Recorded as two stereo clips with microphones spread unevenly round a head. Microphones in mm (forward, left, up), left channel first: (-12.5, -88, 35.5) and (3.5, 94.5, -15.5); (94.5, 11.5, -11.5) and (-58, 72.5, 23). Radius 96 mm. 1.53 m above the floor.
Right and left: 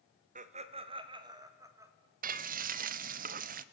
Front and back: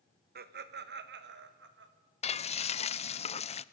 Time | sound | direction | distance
0.3 | laughter | 140° left | 1.4 m
2.2 | frying | 35° left | 0.6 m